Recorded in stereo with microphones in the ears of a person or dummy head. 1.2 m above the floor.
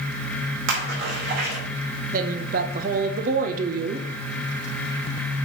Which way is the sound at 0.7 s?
65° right (ahead or behind).